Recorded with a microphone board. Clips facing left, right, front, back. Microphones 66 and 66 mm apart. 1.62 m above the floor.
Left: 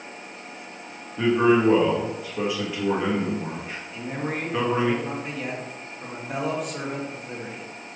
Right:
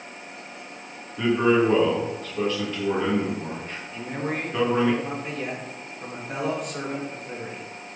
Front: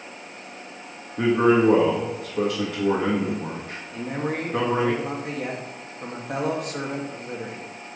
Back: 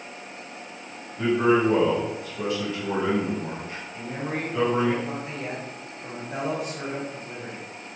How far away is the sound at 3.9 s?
About 2 m.